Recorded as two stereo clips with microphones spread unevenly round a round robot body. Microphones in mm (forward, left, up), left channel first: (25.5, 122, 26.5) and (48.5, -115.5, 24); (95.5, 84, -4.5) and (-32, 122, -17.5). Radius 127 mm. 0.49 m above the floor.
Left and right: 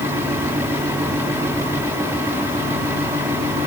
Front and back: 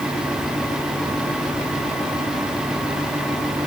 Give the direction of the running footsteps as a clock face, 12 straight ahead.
I don't hear running footsteps.